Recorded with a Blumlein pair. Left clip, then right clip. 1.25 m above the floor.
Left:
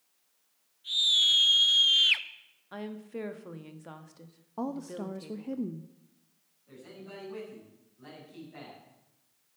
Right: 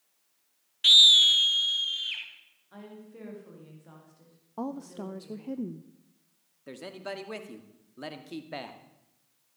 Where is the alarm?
I don't hear an alarm.